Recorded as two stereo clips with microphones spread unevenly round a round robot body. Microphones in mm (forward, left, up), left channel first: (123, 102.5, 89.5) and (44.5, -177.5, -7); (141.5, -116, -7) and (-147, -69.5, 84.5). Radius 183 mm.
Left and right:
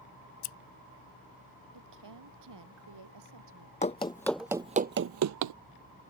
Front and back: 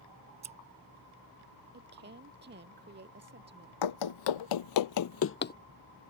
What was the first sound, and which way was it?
Scissors, 95° left.